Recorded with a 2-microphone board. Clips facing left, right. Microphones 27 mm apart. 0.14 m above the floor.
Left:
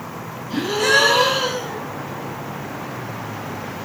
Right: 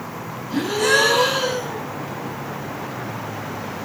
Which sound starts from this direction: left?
A gasp, at 0.5 s.